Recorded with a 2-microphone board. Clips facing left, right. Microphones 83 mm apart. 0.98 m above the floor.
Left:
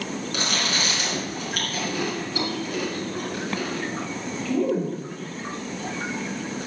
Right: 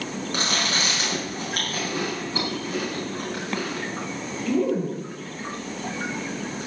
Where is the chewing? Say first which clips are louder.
Right 1 dB; 35° right (ahead or behind), 5 m.